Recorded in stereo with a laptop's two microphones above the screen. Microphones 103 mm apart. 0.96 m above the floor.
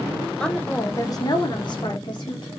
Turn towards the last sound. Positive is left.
turn(degrees=45)  # may be behind; listen again after turning